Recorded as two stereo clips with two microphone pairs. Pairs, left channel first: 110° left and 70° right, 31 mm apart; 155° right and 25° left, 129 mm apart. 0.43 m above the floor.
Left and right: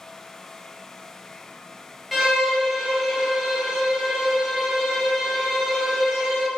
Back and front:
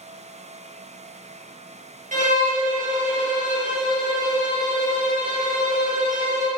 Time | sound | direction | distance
2.1 | a violin | 15° left | 0.5 m